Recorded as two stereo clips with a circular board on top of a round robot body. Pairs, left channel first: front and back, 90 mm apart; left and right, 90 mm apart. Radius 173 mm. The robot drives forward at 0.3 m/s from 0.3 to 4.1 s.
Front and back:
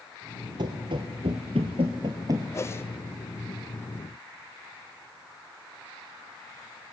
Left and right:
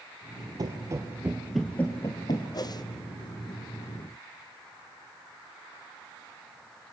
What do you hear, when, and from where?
0.6 s running footsteps: 140° right, 0.7 m; by 2.4 s 125° left, 0.6 m
2.5 s a whoosh: 55° left, 0.9 m; by 2.9 s 60° left, 0.8 m